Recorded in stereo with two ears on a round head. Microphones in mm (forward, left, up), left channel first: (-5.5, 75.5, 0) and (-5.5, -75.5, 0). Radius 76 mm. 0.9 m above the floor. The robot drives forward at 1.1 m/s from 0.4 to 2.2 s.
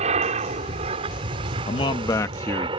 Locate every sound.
0.0 s an aircraft: 40° right (ahead or behind); by 2.8 s 30° right (ahead or behind)
1.7 s a man speaking: 35° left (ahead or behind); by 2.7 s 20° left (ahead or behind)